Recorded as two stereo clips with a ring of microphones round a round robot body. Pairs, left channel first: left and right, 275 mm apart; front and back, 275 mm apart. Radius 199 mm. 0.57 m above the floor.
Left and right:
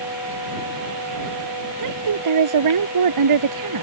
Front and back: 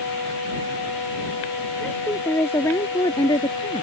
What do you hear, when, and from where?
1.8 s a woman speaking: 90° right; by 3.8 s 80° right